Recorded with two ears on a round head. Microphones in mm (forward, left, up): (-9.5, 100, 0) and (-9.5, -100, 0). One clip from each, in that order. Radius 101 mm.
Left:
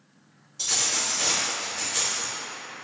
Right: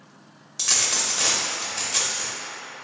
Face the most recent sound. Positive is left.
turn(degrees=-35)  # may be behind; listen again after turning